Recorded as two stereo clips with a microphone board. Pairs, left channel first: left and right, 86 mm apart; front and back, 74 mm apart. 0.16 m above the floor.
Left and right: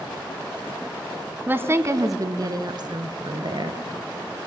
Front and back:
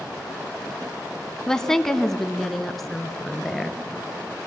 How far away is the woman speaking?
About 1.1 m.